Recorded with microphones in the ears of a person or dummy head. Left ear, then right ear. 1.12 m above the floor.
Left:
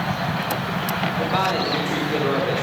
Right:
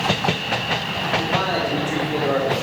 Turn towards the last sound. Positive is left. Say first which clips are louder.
# left 2 dB
turn(degrees=15)  # may be behind; listen again after turning